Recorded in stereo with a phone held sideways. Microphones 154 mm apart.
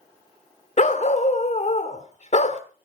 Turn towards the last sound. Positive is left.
turn(degrees=45)  # may be behind; listen again after turning